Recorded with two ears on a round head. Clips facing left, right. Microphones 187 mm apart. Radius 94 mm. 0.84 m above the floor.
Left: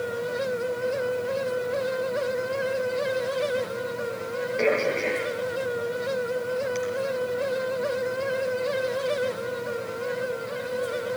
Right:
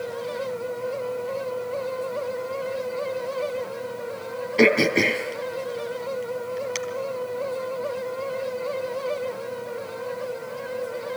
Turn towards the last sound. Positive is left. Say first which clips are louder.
# right 6 dB
turn(degrees=-85)